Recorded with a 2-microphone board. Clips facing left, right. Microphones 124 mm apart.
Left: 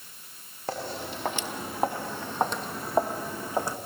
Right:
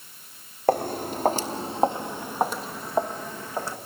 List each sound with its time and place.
0.7 s footsteps: 55° right (ahead or behind), 1.3 m; by 3.8 s 15° left (ahead or behind), 1.8 m